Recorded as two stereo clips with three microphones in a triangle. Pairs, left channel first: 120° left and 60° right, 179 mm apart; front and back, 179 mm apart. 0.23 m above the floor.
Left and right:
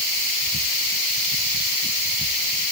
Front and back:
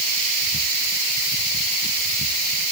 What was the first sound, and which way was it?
Only background noise.